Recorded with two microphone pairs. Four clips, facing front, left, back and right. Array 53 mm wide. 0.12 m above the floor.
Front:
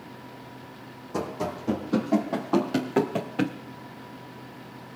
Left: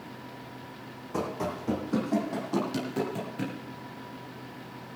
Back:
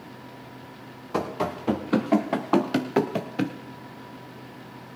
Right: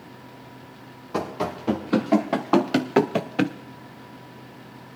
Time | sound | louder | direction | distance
1.1 | running footsteps | right 4 dB, back 3 dB | 160° right | 2.5 m